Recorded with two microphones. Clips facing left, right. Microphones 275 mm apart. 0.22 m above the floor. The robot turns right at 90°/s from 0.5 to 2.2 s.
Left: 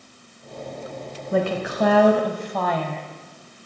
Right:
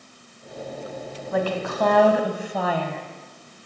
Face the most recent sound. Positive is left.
turn(degrees=-165)